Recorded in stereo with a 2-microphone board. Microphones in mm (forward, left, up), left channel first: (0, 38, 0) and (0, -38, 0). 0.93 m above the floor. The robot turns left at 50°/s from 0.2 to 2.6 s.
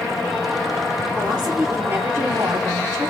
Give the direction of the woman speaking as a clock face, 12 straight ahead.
12 o'clock.